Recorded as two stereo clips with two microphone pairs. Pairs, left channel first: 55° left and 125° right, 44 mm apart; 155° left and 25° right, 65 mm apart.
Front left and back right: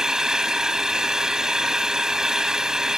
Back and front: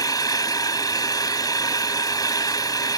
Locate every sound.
0.0 s an engine running: 160° left